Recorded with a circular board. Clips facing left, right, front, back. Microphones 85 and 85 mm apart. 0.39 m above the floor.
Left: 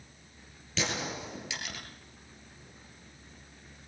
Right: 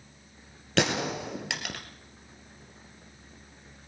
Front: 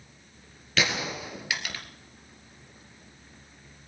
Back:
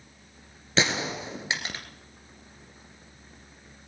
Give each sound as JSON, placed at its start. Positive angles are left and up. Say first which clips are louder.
{"t": 0.8, "sound": "a gunshot", "louder": "right 7 dB, back 2 dB", "azimuth_deg": -115, "distance_m": 2.0}